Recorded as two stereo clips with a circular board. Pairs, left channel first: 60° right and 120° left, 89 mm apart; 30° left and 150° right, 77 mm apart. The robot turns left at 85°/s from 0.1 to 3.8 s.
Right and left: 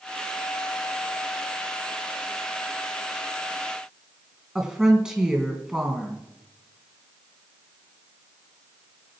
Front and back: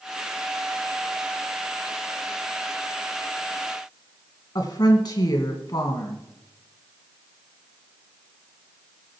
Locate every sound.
4.5 s a woman speaking: 35° left, 2 m